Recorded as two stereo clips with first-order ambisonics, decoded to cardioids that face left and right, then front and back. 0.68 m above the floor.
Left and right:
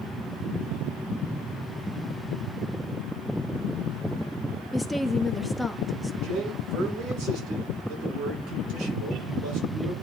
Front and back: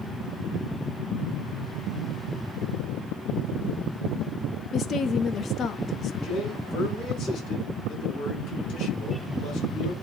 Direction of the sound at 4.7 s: 15° left.